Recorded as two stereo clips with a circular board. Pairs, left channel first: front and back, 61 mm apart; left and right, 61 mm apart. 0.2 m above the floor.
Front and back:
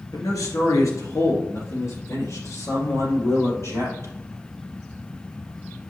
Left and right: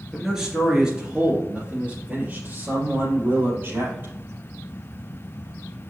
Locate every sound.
0.1 s a man speaking: straight ahead, 3 m; by 4.1 s 35° right, 5 m